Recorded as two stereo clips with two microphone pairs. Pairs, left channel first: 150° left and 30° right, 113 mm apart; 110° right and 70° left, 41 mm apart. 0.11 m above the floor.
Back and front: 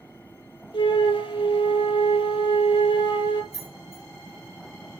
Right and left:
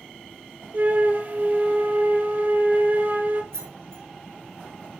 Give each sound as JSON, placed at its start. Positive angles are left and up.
{"t": 0.7, "sound": "a flute", "azimuth_deg": 110, "distance_m": 1.1}
{"t": 3.5, "sound": "keys jangling", "azimuth_deg": -40, "distance_m": 4.0}